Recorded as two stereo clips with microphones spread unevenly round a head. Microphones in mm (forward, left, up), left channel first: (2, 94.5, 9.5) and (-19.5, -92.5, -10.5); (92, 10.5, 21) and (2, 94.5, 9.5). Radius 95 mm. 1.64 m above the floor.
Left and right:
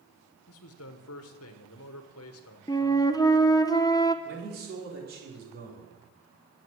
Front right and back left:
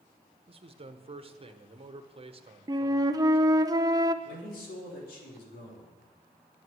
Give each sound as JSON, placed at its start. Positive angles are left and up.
{"t": 0.5, "sound": "a man speaking", "azimuth_deg": 90, "distance_m": 1.2}
{"t": 2.7, "sound": "a flute", "azimuth_deg": 105, "distance_m": 0.6}
{"t": 4.2, "sound": "a man speaking", "azimuth_deg": -50, "distance_m": 4.0}